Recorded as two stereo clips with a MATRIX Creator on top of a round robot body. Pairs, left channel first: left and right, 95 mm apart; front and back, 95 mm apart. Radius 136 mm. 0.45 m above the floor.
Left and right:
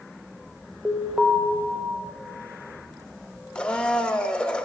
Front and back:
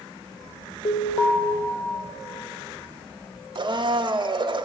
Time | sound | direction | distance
0.8 | an alarm | 5° right | 1.5 m
3.5 | a blender | 170° left | 0.7 m